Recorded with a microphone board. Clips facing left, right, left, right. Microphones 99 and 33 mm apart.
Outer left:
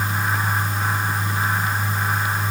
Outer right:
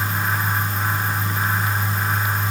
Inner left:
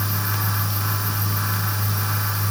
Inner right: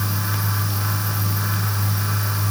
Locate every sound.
Only background noise.